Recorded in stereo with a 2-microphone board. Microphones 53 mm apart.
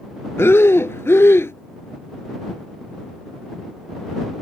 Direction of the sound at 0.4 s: 60° left (ahead or behind).